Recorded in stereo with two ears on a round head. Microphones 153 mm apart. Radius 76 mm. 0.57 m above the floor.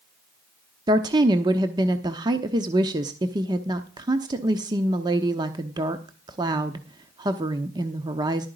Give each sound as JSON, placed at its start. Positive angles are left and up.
{"t": 0.9, "sound": "a woman speaking", "side_deg": -25, "distance_m": 0.9}